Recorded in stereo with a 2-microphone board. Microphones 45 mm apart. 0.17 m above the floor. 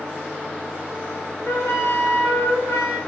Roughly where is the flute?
Left.